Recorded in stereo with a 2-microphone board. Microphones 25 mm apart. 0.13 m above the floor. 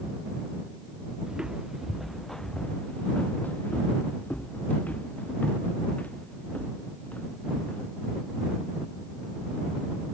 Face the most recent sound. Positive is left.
turn(degrees=75)  # may be behind; listen again after turning